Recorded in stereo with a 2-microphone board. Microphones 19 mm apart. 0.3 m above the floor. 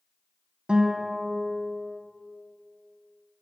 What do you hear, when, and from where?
0.7 s a guitar: 70° right (ahead or behind), 0.7 m